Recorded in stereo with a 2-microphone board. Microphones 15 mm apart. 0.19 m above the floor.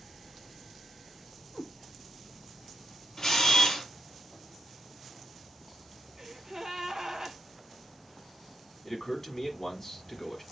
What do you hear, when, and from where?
1.5 s a cat meowing: 65° left (ahead or behind), 1.2 m
3.2 s a camera shutter: 40° left (ahead or behind), 1.9 m
6.2 s a gasp: 40° right (ahead or behind), 1.1 m
8.8 s a man speaking: 30° left (ahead or behind), 1.6 m